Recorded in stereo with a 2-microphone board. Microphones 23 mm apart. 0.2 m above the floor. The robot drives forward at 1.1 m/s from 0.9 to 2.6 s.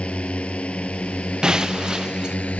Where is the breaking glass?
35° right (ahead or behind).